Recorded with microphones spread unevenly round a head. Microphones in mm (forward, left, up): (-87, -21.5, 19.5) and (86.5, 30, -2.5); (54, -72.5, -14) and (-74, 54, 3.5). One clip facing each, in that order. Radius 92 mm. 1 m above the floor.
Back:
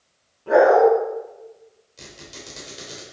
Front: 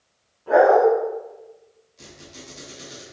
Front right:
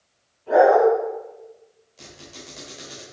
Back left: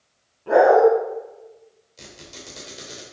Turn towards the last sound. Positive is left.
turn(degrees=175)